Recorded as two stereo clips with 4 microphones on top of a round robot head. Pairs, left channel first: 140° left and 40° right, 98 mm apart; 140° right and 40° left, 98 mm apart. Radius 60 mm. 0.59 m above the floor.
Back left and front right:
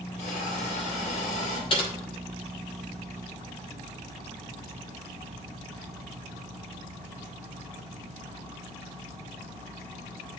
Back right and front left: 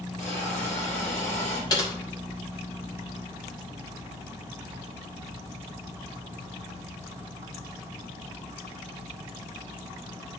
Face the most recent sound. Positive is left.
turn(degrees=170)